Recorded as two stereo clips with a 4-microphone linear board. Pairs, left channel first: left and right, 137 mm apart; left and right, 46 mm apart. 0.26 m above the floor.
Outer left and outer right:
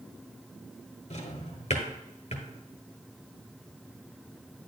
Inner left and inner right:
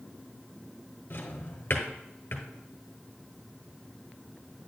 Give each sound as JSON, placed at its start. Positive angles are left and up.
{"t": 1.1, "sound": "a drawer", "side_deg": 55, "distance_m": 1.7}